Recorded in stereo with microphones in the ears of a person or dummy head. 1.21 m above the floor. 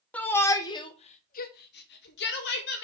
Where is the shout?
5° left (ahead or behind), 1.0 m; by 2.8 s 50° left (ahead or behind), 1.2 m.